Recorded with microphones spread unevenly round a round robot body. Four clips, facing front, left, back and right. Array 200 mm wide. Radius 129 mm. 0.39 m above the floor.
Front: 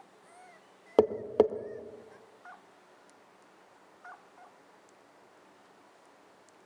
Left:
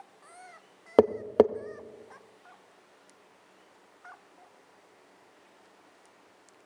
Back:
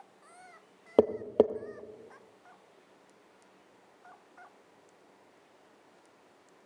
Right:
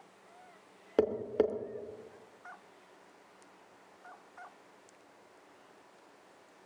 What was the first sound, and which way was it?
Tapping, 75° left.